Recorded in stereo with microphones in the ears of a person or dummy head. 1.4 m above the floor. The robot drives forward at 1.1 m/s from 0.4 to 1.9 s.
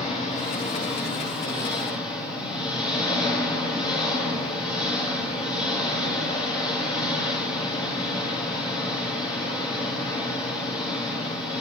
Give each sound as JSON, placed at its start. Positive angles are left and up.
{"t": 0.0, "sound": "an engine running", "side_deg": 35, "distance_m": 4.5}